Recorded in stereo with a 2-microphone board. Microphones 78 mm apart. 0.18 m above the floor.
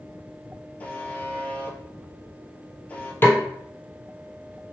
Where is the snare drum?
25° left (ahead or behind), 0.9 m.